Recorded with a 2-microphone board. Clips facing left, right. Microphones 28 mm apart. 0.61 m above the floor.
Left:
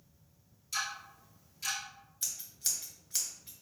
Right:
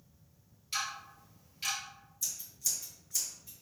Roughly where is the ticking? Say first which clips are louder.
Even; right.